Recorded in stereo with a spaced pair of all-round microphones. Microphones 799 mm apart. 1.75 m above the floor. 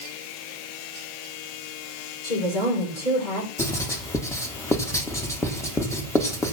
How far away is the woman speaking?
About 7 m.